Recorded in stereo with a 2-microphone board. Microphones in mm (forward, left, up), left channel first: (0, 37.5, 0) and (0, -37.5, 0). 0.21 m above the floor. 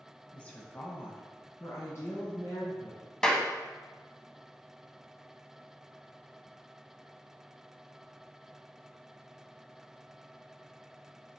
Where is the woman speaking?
15° left (ahead or behind), 1.0 m; by 3.0 s 50° left (ahead or behind), 1.9 m.